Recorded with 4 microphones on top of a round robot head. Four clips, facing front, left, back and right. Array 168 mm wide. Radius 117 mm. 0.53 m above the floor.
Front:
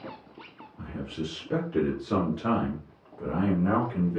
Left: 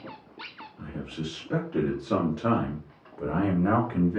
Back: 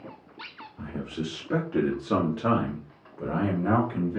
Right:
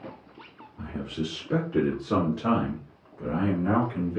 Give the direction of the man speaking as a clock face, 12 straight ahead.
5 o'clock.